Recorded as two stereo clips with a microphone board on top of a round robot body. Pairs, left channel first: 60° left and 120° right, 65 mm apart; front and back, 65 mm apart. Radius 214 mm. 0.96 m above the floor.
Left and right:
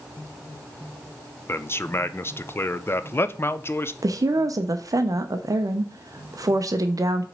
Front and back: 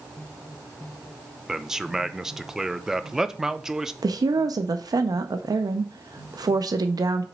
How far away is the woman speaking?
About 0.6 m.